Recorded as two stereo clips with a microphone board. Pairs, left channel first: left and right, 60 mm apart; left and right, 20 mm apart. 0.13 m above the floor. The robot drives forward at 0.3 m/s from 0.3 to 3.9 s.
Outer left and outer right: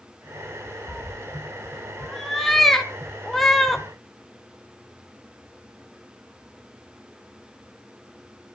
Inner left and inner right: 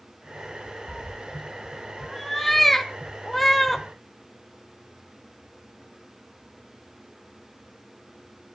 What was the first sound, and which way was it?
A cat meowing, centre (ahead or behind).